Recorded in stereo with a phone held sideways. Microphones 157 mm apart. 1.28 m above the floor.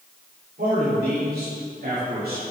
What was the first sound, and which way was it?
A man speaking, 75° right (ahead or behind).